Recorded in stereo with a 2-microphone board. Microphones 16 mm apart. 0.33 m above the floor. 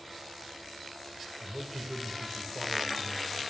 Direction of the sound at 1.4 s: 25° right (ahead or behind).